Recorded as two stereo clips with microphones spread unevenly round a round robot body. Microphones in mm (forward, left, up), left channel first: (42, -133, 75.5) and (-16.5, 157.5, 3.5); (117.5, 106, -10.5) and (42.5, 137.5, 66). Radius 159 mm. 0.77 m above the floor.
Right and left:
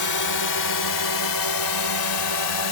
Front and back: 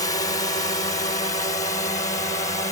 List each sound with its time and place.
0.0 s a drone: 45° right; by 2.7 s 65° right